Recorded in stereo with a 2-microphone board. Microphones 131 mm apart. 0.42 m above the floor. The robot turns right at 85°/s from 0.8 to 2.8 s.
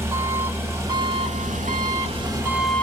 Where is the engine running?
160° right, 1.0 m; by 2.8 s 10° left, 1.0 m.